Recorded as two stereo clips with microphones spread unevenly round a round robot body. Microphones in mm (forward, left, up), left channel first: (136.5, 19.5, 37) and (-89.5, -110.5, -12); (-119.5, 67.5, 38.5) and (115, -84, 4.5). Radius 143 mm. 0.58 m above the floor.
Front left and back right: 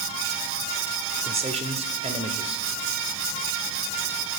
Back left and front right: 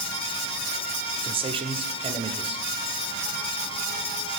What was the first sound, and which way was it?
A man speaking, 95° right.